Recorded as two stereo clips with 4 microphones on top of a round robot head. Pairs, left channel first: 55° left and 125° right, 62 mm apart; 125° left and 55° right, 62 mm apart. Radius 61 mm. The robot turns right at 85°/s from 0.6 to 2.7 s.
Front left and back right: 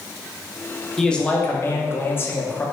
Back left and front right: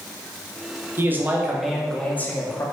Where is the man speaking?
30° right, 0.9 m; by 2.6 s 115° left, 0.9 m.